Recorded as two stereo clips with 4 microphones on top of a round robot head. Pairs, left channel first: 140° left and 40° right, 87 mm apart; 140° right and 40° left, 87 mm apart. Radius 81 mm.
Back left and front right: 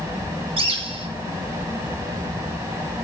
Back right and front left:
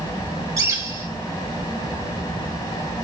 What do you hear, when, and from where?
0.6 s a bird: 20° right, 3 m